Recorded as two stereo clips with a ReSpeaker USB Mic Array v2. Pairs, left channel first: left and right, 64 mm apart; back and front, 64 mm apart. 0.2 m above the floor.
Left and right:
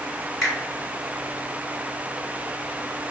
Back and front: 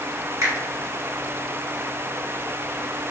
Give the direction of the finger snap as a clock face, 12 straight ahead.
12 o'clock.